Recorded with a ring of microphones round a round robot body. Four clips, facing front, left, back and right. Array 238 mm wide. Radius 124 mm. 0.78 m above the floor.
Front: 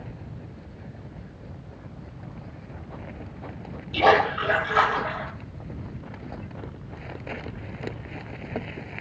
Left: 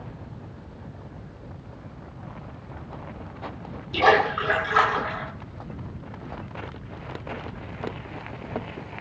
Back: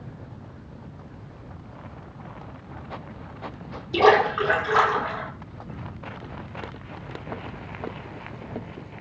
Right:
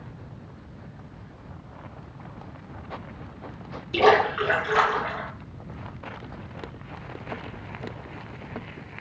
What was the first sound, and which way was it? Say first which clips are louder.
A splash: right 1 dB, back 2 dB; 155° right.